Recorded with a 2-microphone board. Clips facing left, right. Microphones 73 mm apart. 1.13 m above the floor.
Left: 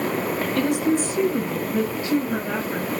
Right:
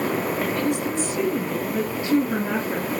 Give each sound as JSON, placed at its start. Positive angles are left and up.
{"t": 0.6, "sound": "a woman speaking", "side_deg": 80, "distance_m": 0.8}